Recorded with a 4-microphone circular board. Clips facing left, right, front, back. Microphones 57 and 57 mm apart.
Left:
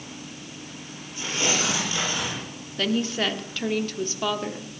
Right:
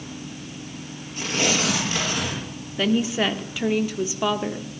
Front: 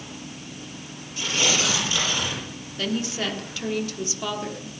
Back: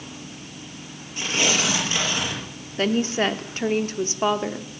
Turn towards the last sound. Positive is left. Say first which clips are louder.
# right 3 dB, back 6 dB
turn(degrees=-160)